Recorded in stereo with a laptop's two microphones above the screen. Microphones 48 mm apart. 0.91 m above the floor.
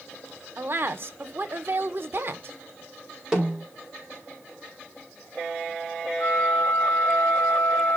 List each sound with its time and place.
0.6 s a woman speaking: 50° right (ahead or behind), 1.2 m
3.3 s a snare drum: 10° right (ahead or behind), 5 m
6.2 s a flute: 65° left (ahead or behind), 1.6 m